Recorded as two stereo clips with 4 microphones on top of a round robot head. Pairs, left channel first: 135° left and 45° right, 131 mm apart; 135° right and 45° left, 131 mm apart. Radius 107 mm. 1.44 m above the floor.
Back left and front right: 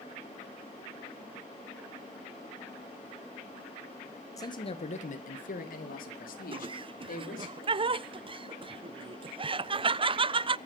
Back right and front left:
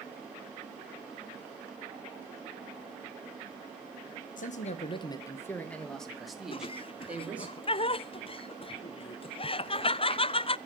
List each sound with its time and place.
4.4 s a man speaking: 160° right, 1.3 m; by 7.5 s 120° left, 4 m
6.5 s laughter: 90° right, 0.5 m